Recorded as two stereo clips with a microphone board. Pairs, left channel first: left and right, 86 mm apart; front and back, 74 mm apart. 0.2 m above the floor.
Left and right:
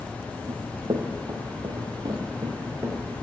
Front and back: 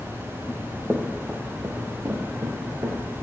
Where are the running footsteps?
75° right, 1.0 m; by 3.0 s 140° right, 1.8 m.